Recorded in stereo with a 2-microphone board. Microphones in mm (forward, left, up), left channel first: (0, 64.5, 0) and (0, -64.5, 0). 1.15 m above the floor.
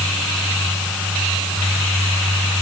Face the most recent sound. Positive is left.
No sound to turn to.